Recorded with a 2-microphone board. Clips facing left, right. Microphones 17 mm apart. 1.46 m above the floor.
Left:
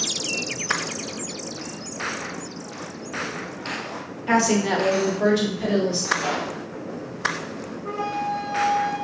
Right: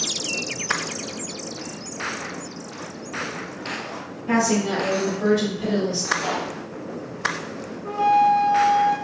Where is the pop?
Centre (ahead or behind), 1.9 m.